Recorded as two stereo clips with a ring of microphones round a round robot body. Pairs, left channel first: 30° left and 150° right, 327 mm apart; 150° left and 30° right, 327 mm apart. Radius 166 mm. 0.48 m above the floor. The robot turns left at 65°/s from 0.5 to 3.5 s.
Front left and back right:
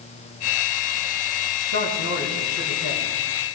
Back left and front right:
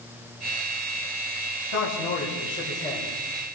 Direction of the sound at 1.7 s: 160° left.